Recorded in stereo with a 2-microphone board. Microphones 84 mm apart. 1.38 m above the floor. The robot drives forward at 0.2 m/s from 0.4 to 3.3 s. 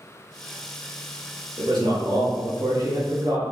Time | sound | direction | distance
1.6 | a man speaking | 60° right (ahead or behind) | 0.8 m